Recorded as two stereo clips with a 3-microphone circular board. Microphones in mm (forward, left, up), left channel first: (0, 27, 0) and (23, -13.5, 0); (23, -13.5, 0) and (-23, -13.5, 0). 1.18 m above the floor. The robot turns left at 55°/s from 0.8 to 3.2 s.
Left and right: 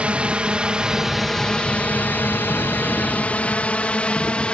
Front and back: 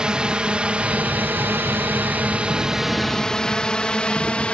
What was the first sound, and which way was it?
A drone, 115° right.